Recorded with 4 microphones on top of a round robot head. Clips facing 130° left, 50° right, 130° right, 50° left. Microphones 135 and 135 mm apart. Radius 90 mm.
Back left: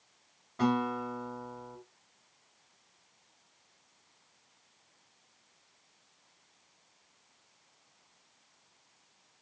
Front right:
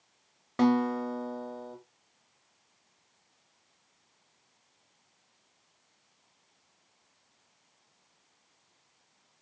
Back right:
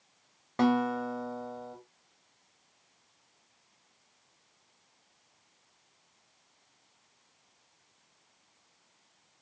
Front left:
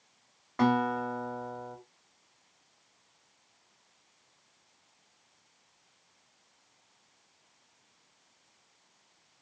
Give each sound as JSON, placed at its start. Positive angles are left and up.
{"t": 0.6, "sound": "a guitar", "azimuth_deg": -65, "distance_m": 0.9}